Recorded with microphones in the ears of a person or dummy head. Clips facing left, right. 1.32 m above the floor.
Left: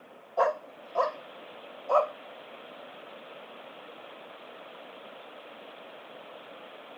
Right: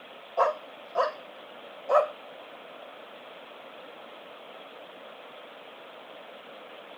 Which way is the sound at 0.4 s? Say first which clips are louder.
Even; 5° left (ahead or behind).